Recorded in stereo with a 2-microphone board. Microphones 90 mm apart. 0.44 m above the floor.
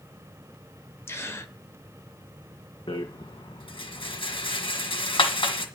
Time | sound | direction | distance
1.1 | a gasp | 30° left (ahead or behind) | 1.4 m
2.9 | a rattle | 70° left (ahead or behind) | 2 m